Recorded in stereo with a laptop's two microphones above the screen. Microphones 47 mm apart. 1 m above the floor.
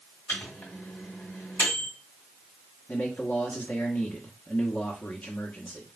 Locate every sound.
0.3 s a microwave: 75° left (ahead or behind), 2.5 m
2.9 s a man speaking: 45° left (ahead or behind), 0.9 m